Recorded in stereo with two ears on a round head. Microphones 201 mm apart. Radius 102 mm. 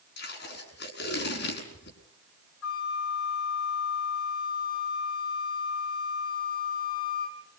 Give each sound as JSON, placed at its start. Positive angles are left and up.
{"t": 0.2, "sound": "tape being pulled", "side_deg": 55, "distance_m": 6.0}
{"t": 2.6, "sound": "a flute", "side_deg": 70, "distance_m": 3.0}